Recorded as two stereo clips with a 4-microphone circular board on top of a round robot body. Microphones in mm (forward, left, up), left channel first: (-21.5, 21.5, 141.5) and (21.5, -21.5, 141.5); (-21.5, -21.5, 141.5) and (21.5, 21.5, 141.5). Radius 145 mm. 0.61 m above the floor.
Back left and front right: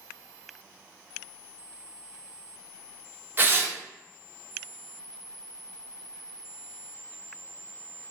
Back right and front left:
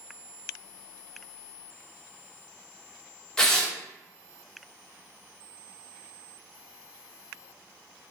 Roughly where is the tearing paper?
Ahead right.